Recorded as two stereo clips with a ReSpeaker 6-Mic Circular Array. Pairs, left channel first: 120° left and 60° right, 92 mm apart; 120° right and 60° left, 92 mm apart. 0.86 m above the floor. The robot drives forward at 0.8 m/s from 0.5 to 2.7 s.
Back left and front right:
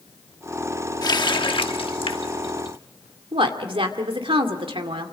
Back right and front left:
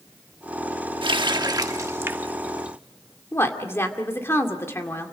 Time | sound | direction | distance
1.0 | a running tap | 80° left | 1.0 m
3.3 | a woman speaking | 60° right | 2 m